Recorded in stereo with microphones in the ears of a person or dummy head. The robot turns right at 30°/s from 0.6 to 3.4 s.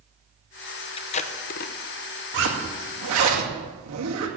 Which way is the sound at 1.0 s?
30° left (ahead or behind).